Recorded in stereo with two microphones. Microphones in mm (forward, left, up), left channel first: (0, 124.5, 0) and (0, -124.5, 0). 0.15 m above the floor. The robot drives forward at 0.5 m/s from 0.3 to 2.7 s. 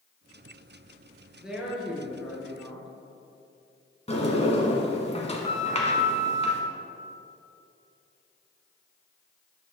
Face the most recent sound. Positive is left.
turn(degrees=25)  # may be behind; listen again after turning